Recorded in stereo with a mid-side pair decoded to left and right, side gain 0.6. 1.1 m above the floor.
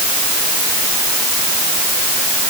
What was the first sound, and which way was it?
Only background noise.